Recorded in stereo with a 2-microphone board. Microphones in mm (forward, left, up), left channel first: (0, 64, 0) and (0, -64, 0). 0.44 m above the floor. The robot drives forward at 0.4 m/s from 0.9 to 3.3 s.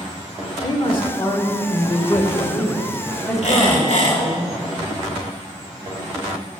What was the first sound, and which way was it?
A man speaking, 40° left (ahead or behind).